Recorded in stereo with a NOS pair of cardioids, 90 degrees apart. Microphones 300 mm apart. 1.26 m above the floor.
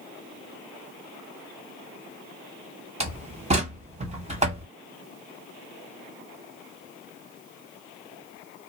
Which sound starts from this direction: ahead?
A door slam, at 3.0 s.